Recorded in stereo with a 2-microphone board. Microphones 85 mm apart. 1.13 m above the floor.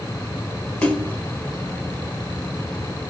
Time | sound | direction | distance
0.8 | a splash | 20° left (ahead or behind) | 1.2 m